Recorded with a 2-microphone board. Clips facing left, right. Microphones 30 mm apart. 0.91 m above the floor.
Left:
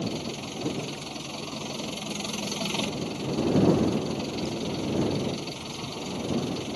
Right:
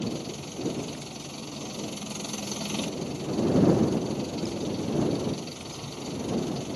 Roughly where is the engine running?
Left.